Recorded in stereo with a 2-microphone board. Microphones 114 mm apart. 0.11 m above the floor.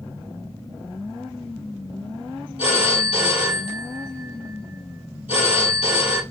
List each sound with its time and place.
2.6 s a phone ringing: 55° left (ahead or behind), 1.6 m